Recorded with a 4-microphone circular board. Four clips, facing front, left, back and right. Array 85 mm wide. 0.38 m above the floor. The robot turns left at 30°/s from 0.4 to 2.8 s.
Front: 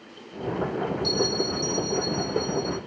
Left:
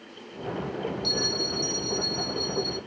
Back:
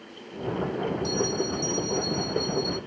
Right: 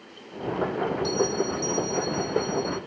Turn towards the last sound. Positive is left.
turn(degrees=65)